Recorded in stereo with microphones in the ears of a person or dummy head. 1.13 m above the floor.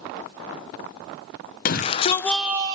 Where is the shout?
45° left (ahead or behind), 0.7 m; by 2.8 s 25° right (ahead or behind), 0.6 m.